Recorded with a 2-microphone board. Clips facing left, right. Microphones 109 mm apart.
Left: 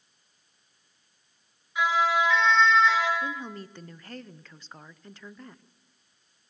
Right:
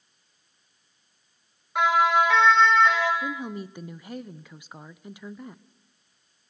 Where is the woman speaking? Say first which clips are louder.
Right 3 dB; 10° right (ahead or behind), 0.7 m.